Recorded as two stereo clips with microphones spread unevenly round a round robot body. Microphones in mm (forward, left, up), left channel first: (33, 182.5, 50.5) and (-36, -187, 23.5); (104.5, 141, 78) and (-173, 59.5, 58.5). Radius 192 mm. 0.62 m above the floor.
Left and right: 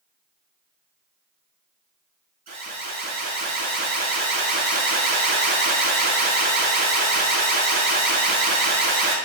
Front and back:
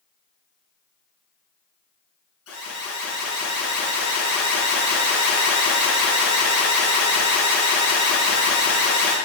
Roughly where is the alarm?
Ahead right.